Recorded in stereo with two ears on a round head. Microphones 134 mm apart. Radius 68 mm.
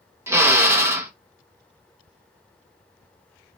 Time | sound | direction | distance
0.3 | a drill | 15° right (ahead or behind) | 1.0 m